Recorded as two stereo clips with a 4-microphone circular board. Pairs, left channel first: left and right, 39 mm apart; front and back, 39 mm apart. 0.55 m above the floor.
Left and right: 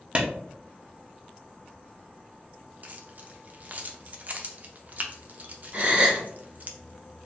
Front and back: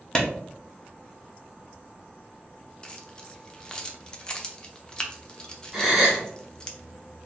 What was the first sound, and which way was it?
A clap, 55° right.